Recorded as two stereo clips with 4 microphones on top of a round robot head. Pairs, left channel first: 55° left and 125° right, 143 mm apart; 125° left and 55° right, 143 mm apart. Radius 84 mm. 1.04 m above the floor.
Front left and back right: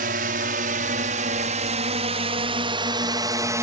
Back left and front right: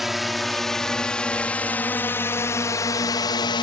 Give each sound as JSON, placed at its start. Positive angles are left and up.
{"t": 0.0, "sound": "a drone", "azimuth_deg": -145}